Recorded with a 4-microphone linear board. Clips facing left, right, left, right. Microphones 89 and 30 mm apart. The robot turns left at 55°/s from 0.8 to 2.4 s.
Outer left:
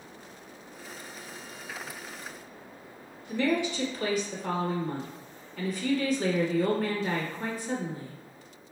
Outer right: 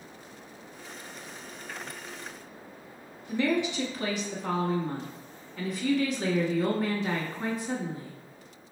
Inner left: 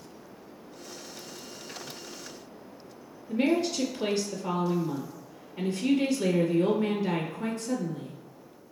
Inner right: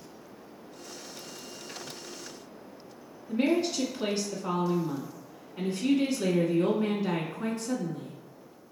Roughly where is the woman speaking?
Right.